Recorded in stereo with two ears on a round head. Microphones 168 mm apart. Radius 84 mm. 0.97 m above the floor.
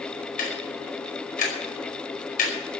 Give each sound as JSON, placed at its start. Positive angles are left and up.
{"t": 0.4, "sound": "ticking", "side_deg": 45, "distance_m": 5.0}